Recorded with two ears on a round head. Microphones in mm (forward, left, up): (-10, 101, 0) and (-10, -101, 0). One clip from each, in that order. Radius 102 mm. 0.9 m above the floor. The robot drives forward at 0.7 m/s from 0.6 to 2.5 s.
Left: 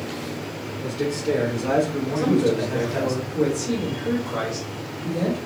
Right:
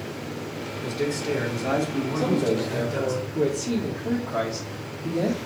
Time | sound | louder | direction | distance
0.8 | a man speaking | left 2 dB | 40° right (ahead or behind) | 2 m
2.1 | a man speaking | left 3 dB | 20° right (ahead or behind) | 1.5 m